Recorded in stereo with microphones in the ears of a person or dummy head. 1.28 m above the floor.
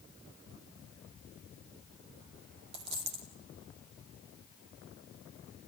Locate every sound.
2.7 s a dropped coin: 60° right (ahead or behind), 3 m